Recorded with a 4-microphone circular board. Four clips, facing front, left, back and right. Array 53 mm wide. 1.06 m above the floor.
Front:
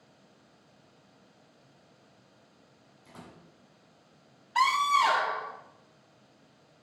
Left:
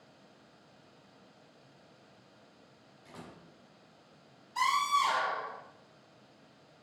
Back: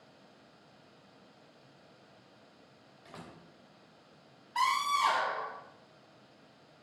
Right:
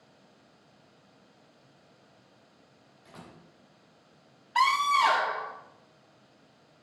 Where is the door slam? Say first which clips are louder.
Even, even; straight behind, 3.5 m.